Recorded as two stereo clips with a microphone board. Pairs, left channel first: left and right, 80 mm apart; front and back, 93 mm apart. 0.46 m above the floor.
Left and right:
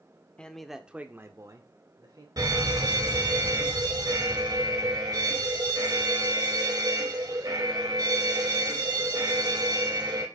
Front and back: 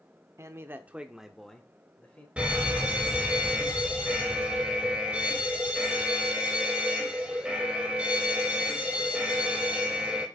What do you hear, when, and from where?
0.4 s a man speaking: 155° left, 1.0 m; by 2.3 s 70° right, 1.7 m
2.4 s a fire alarm: 105° right, 3.5 m